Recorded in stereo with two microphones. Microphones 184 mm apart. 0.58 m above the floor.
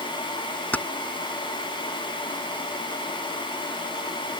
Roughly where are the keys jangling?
Centre.